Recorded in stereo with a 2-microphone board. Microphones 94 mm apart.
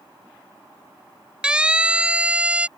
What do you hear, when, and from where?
1.4 s a siren: 10° right (ahead or behind)